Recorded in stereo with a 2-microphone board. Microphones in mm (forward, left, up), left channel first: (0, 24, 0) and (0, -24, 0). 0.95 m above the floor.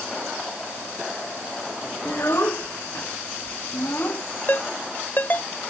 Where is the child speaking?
65° left (ahead or behind); by 4.2 s 45° left (ahead or behind).